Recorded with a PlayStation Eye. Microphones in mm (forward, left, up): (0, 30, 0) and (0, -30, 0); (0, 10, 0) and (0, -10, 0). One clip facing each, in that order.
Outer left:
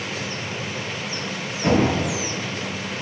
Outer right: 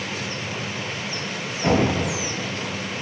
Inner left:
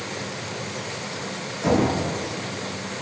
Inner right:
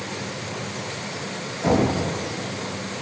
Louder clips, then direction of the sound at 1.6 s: Outer left 1 dB, even; centre (ahead or behind).